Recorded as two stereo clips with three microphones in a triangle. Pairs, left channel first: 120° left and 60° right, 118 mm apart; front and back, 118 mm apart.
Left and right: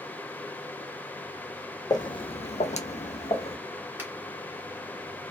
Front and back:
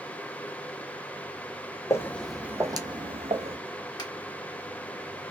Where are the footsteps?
65° left, 0.6 m; by 3.6 s 155° left, 0.9 m.